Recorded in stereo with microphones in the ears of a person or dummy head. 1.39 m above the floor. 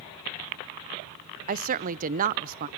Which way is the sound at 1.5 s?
45° right (ahead or behind).